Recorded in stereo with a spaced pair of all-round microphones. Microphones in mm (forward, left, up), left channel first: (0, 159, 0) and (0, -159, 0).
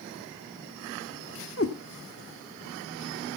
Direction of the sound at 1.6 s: 40° left (ahead or behind).